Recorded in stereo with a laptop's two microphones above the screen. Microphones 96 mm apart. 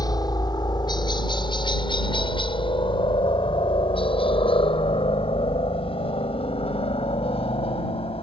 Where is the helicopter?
40° left (ahead or behind); by 8.2 s 75° left (ahead or behind).